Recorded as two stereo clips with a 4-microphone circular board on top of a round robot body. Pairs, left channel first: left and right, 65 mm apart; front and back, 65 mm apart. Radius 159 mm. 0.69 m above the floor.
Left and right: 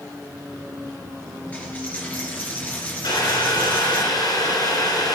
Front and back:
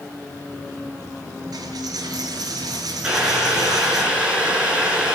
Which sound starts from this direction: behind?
A dropped coin, at 1.5 s.